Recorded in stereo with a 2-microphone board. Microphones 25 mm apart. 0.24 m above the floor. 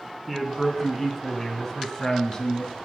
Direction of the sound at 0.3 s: 5° right (ahead or behind).